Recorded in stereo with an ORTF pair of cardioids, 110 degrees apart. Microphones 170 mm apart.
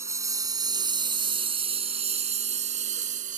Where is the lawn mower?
15° right; by 3.4 s 50° right.